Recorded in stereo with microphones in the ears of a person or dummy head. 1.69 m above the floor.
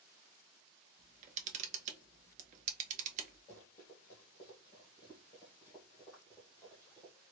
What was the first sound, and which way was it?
A camera shutter, 40° right (ahead or behind).